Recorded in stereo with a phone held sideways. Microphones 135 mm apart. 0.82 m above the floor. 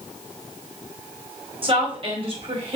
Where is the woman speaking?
40° right (ahead or behind), 3 m.